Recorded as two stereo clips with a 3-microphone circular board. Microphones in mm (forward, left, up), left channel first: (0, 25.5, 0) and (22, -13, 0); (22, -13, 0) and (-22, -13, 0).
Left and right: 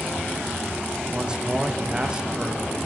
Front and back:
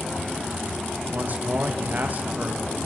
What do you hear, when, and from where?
1.1 s a man speaking: 130° right, 2.5 m